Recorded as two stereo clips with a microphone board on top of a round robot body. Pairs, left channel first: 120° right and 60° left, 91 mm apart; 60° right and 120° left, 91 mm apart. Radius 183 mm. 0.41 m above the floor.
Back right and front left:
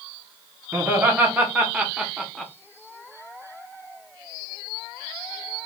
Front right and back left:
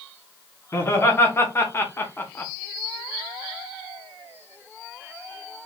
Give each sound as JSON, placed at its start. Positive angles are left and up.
{"t": 0.7, "sound": "laughter", "azimuth_deg": -5, "distance_m": 1.5}